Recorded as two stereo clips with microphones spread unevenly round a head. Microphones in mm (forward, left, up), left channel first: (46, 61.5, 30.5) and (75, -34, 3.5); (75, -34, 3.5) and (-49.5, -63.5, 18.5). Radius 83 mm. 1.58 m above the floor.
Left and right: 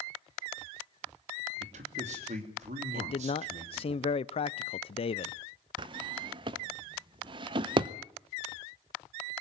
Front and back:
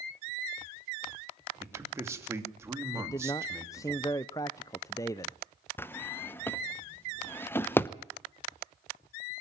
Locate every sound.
1.6 s a man speaking: 100° right, 3 m
2.9 s a man speaking: 85° left, 0.6 m
5.8 s a drawer: 60° right, 0.7 m